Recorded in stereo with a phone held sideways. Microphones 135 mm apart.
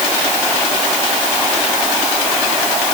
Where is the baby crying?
I don't hear a baby crying.